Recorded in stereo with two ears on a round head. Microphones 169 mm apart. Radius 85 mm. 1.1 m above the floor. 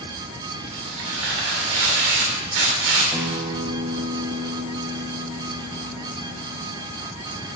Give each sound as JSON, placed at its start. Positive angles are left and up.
{"t": 0.7, "sound": "tearing paper", "side_deg": -65, "distance_m": 2.5}
{"t": 3.1, "sound": "a guitar", "side_deg": -15, "distance_m": 0.8}